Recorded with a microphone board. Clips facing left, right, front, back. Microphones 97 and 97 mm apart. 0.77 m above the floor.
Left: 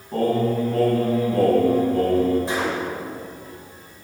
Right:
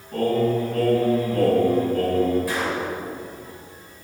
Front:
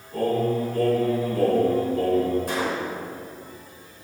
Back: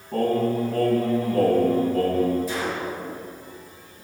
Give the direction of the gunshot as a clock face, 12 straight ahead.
11 o'clock.